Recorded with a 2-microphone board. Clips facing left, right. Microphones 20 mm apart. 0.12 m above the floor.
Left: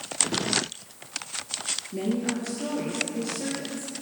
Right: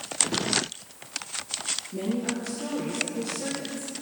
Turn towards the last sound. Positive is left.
turn(degrees=20)  # may be behind; listen again after turning